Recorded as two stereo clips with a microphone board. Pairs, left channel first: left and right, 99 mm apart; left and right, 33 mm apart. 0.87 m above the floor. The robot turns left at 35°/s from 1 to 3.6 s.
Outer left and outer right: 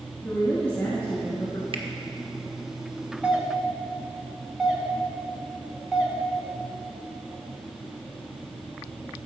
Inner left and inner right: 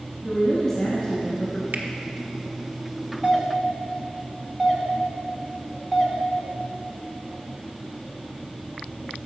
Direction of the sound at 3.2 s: 10° right (ahead or behind).